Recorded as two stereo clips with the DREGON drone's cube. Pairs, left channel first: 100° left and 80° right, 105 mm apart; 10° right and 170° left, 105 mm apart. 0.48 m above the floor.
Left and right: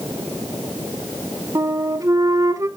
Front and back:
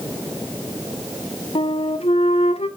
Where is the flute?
20° right, 0.8 m.